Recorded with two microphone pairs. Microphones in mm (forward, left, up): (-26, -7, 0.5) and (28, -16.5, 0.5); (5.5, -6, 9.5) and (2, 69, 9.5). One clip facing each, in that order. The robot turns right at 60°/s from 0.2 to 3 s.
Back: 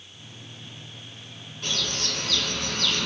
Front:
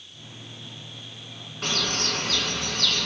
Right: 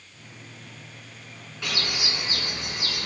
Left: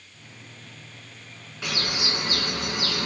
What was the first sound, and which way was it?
A bird, 10° left.